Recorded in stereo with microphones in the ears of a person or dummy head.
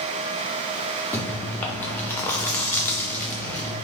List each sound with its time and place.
1.1 s chewing: 10° left (ahead or behind), 0.6 m